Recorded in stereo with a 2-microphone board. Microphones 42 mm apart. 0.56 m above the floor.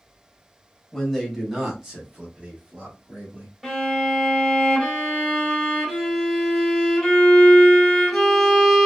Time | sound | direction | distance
0.9 | a man speaking | 10° left (ahead or behind) | 0.9 m
3.6 | a violin | 5° right (ahead or behind) | 1.0 m